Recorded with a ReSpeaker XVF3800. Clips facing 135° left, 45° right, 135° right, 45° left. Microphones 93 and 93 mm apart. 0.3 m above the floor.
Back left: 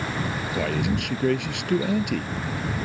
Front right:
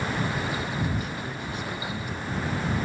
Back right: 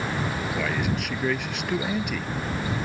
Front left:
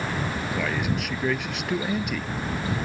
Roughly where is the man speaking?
Behind left.